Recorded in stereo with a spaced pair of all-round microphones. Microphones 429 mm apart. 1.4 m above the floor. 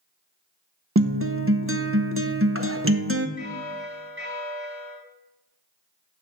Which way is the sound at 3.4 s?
25° right (ahead or behind).